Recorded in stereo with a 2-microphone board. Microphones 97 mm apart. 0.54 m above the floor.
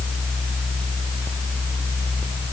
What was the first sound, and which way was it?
Only background noise.